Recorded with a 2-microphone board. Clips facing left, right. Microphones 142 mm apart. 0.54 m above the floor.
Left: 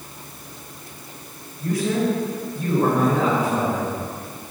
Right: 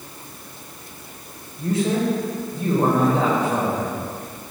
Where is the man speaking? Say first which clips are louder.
Right 1 dB; 25° right (ahead or behind), 2 m.